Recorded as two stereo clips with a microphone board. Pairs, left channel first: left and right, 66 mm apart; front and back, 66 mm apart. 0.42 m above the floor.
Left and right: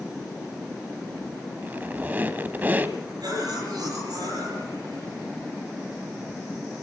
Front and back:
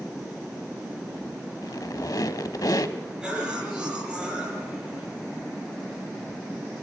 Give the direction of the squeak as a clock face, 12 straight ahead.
1 o'clock.